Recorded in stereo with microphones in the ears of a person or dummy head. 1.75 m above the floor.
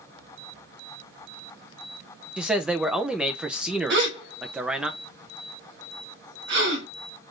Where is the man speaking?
5° right (ahead or behind), 0.6 m.